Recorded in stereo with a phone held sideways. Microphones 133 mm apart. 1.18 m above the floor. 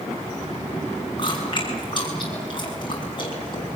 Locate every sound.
1.2 s chewing: 35° left (ahead or behind), 7 m